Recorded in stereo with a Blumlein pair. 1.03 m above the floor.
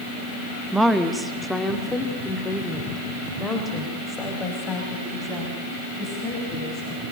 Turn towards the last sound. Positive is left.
turn(degrees=20)